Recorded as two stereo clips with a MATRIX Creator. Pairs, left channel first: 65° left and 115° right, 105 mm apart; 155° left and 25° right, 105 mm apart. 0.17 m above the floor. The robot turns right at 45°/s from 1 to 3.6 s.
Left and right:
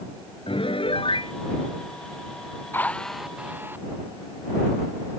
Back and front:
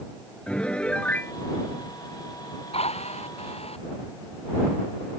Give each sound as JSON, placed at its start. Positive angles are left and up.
{"t": 0.5, "sound": "a piano", "azimuth_deg": 80}
{"t": 2.7, "sound": "a drill", "azimuth_deg": 135}